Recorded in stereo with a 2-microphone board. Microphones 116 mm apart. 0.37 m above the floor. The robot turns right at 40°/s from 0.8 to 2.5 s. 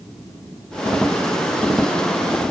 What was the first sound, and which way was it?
Only background noise.